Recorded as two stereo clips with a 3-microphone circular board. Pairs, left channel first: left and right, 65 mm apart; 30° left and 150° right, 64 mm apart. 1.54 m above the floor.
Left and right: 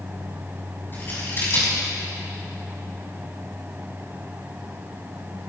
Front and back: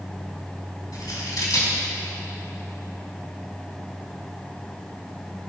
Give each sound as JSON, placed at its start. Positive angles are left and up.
{"t": 0.9, "sound": "scissors", "azimuth_deg": 35, "distance_m": 6.5}